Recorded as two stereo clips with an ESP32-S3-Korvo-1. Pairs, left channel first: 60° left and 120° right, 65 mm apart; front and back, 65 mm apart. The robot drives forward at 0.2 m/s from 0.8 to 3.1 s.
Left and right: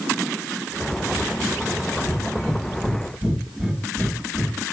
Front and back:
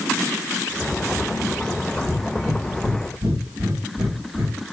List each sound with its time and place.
2.0 s breathing: 140° left, 1.6 m; by 4.6 s 145° left, 1.7 m